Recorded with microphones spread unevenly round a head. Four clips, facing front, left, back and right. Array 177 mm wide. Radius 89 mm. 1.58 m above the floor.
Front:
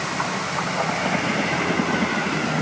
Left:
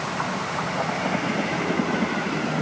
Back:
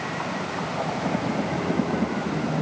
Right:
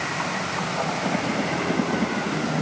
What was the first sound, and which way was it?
Only background noise.